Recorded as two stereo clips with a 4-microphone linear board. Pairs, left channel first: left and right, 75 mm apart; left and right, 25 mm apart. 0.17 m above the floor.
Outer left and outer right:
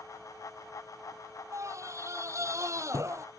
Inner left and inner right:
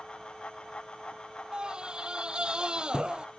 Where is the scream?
40° right (ahead or behind).